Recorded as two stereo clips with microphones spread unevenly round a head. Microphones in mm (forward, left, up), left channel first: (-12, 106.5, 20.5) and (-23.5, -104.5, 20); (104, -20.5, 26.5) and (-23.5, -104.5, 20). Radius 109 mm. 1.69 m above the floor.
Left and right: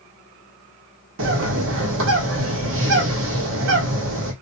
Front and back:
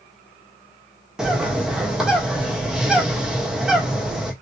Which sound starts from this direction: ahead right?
A bird, at 1.2 s.